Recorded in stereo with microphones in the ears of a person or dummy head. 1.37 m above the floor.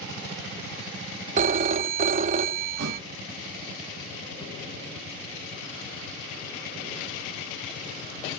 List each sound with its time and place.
1.4 s a phone ringing: 40° right (ahead or behind), 0.5 m
2.8 s a thud: 70° right (ahead or behind), 3 m